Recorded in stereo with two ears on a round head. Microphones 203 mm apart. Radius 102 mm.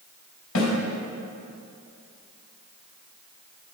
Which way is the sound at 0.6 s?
80° left.